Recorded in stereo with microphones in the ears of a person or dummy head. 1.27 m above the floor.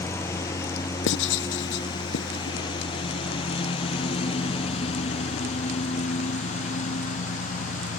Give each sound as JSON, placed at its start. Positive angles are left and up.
{"t": 0.0, "sound": "a lawn mower", "side_deg": 15}
{"t": 1.1, "sound": "writing", "side_deg": 60}